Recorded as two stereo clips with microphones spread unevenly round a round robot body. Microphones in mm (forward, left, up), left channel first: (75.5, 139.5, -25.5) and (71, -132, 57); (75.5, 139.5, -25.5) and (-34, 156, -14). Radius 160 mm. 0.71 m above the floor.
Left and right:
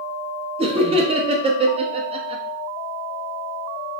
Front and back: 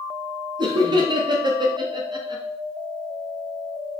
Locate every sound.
0.6 s laughter: 170° right, 0.6 m